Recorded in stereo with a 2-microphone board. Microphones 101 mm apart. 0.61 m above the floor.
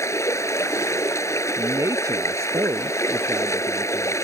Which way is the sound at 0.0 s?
30° left (ahead or behind).